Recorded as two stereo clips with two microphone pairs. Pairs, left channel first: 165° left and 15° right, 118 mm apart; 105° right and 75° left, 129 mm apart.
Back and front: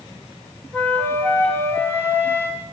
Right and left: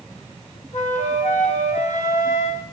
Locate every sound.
0.7 s a flute: 125° right, 2.5 m